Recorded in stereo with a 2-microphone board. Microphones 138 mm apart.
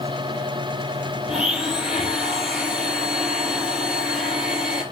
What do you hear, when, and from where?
1.3 s a blender: 5° right (ahead or behind), 3.5 m